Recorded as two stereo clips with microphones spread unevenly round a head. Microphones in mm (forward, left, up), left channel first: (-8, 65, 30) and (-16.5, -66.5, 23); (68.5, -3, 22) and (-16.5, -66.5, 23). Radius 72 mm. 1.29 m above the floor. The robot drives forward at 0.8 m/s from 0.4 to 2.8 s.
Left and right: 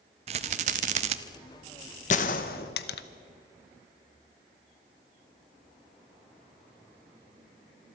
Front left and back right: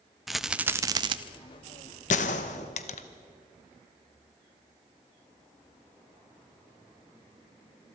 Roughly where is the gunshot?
Ahead left.